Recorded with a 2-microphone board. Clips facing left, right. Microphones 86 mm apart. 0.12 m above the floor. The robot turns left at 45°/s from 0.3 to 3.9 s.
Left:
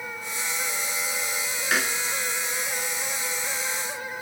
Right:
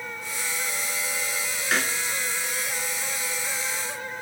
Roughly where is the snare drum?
Centre.